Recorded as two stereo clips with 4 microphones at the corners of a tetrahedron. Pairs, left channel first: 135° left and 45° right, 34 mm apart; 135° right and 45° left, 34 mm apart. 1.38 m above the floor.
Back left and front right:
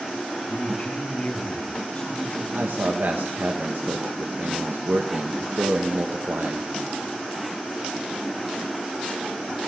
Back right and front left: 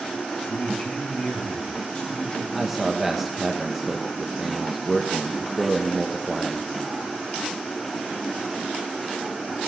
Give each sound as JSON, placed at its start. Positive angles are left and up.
{"t": 0.5, "sound": "a man speaking", "azimuth_deg": -165, "distance_m": 3.0}
{"t": 2.5, "sound": "a man speaking", "azimuth_deg": -40, "distance_m": 1.6}